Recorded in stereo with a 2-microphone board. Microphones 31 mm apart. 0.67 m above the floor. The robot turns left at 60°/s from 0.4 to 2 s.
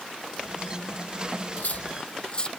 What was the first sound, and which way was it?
Cutlery clinking, 55° left (ahead or behind).